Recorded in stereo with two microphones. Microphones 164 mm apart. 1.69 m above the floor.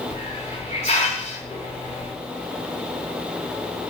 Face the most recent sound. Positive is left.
turn(degrees=45)  # may be behind; listen again after turning